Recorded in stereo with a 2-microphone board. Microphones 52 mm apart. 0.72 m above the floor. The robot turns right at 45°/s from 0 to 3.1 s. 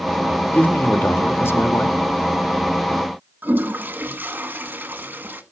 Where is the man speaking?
40° left, 1.3 m; by 2.0 s 105° left, 1.3 m.